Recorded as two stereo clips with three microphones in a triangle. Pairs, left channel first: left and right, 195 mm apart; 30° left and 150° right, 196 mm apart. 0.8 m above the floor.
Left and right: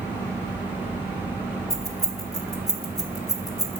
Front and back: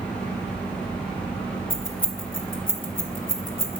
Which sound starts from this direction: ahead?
Keys jangling, at 1.7 s.